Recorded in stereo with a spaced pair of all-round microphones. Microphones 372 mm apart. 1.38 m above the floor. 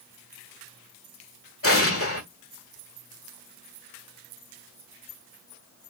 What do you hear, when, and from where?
1.6 s an explosion: 35° left (ahead or behind), 1.3 m